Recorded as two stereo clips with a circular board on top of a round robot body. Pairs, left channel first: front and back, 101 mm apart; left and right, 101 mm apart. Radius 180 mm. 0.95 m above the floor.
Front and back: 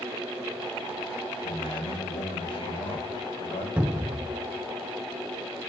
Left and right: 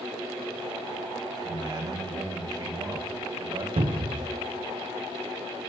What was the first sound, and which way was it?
A man speaking, 35° right.